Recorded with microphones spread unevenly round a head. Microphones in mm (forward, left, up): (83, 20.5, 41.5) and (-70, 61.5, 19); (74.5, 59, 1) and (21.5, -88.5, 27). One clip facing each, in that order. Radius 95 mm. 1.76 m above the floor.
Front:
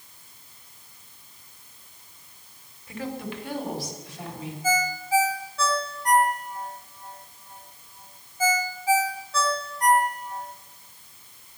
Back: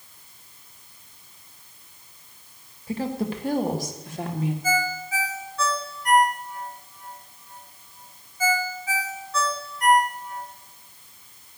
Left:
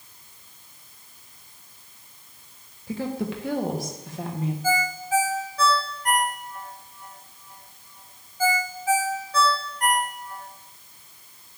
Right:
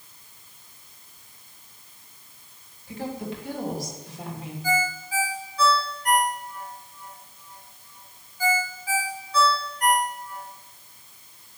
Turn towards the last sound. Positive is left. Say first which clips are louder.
# even, even
turn(degrees=30)